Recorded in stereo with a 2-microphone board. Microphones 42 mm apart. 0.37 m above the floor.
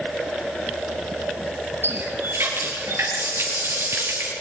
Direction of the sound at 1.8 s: 80° right.